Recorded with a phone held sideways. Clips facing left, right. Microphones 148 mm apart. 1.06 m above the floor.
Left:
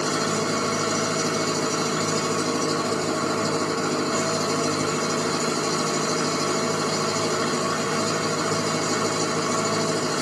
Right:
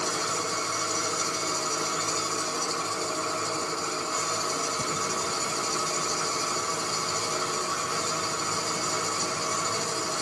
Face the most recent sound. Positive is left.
turn(degrees=70)  # may be behind; listen again after turning